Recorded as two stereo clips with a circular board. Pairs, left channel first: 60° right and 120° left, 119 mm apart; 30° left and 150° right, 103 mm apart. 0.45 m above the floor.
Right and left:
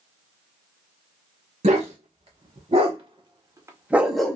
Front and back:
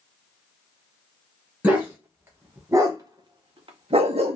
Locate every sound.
1.6 s a dog barking: 135° left, 1.3 m; by 4.4 s 140° right, 0.6 m